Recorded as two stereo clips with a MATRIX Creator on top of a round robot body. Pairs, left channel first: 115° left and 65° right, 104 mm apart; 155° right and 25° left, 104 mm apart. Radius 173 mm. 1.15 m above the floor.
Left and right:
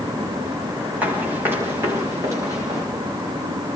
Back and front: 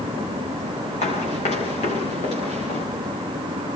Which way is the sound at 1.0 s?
145° right.